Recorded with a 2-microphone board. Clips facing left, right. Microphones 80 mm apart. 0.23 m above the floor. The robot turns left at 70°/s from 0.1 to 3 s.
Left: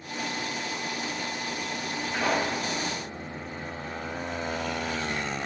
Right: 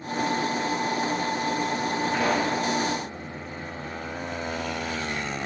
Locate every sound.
2.1 s a pop: 60° right, 4.5 m; by 2.6 s 90° right, 4.5 m